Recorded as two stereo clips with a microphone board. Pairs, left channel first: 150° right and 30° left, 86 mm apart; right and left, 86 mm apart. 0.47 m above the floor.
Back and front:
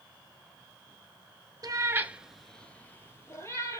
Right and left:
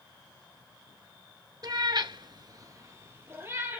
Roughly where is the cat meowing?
Ahead left.